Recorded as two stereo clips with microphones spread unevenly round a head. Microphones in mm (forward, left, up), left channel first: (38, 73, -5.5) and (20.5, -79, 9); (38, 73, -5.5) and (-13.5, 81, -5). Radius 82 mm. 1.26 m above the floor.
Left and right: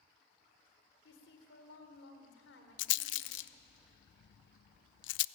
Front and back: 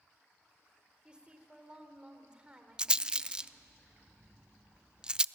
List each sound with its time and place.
1.1 s a woman speaking: 100° left, 4 m
2.8 s a rattle: 95° left, 0.5 m